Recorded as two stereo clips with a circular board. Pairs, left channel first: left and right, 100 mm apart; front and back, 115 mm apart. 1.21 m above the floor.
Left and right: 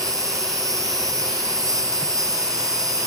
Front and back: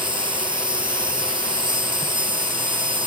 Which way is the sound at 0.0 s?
140° right.